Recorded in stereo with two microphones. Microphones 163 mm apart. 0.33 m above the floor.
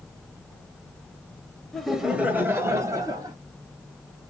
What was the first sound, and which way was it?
Laughter, 5° left (ahead or behind).